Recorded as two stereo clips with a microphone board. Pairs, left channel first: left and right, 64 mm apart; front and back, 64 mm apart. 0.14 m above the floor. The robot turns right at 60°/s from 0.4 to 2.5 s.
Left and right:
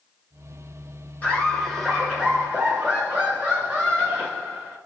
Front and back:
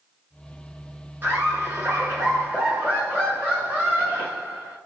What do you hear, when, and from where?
1.2 s laughter: 140° left, 1.5 m; by 4.8 s 140° right, 1.5 m